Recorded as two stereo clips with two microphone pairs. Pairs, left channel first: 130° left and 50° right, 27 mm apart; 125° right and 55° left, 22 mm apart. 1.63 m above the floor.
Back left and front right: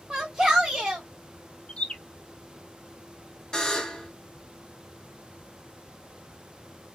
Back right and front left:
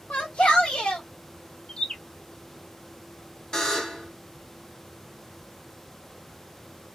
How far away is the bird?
About 0.6 m.